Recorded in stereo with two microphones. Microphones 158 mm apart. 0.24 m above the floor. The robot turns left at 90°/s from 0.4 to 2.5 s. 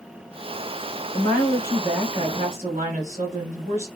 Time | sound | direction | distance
1.1 | a woman speaking | 65° left | 3 m